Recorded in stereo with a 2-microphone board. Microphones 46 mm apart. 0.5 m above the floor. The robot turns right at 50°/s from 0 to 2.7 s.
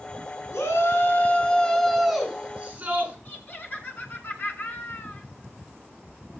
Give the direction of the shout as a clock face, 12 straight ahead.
9 o'clock.